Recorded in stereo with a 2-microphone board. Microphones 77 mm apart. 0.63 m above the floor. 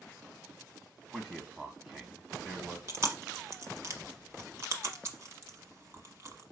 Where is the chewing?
45° right (ahead or behind), 0.8 m.